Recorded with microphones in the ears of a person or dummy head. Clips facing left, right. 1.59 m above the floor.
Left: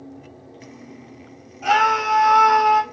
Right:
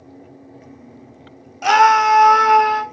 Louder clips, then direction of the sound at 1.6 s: Right 6 dB; 75° right (ahead or behind).